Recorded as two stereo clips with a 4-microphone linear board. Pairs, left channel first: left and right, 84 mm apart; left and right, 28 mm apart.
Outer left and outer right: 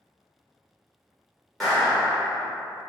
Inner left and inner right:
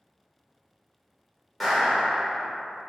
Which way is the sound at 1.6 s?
Centre (ahead or behind).